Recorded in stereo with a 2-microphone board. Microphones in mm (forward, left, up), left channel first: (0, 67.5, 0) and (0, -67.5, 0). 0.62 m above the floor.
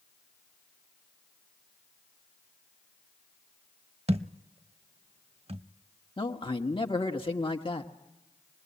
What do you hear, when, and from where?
4.1 s a thud: 50° right (ahead or behind), 0.5 m
6.2 s a man speaking: 40° left (ahead or behind), 1.4 m